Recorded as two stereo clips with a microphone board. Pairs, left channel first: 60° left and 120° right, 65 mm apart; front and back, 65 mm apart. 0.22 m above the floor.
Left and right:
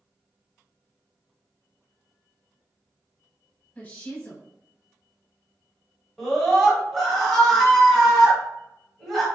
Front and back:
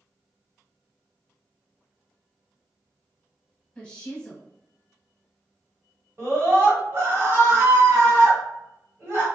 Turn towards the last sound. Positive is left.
turn(degrees=145)